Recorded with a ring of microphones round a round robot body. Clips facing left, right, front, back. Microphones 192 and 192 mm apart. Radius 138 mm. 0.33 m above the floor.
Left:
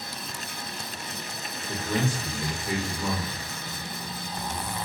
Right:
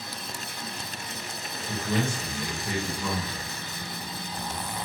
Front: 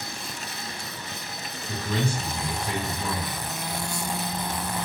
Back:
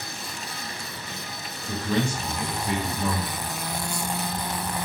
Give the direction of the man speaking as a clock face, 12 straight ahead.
5 o'clock.